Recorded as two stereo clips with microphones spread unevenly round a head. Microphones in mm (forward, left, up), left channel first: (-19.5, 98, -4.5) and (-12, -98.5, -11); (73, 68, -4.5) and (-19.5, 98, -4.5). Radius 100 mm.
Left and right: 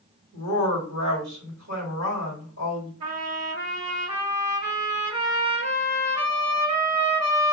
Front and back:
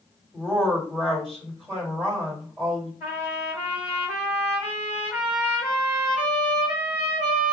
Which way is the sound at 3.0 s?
80° right.